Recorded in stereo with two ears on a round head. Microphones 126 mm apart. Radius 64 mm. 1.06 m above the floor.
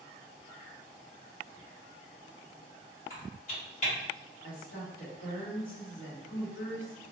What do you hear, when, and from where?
3.1 s typing on a keyboard: 55° left (ahead or behind), 1.8 m
4.4 s a woman speaking: 65° left (ahead or behind), 1.3 m